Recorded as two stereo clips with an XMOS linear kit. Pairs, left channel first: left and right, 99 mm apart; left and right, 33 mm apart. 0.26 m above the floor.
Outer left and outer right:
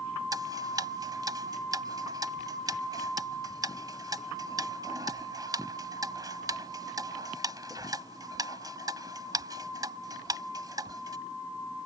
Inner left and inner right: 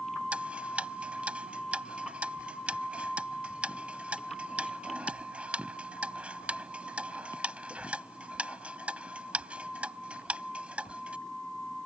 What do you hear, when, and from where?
0.3 s ticking: 40° right (ahead or behind)